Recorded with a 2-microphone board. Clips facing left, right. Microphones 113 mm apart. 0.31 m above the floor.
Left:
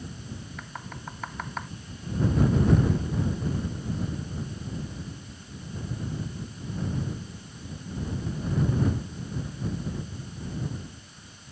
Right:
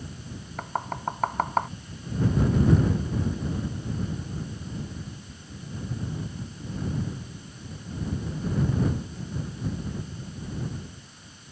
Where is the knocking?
45° right (ahead or behind).